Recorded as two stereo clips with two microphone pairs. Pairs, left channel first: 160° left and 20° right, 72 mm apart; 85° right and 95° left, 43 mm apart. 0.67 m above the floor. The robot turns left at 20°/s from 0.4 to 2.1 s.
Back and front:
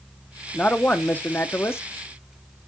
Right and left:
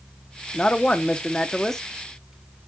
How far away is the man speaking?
About 0.8 m.